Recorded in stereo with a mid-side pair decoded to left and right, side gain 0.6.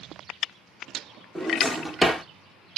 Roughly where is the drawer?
Ahead.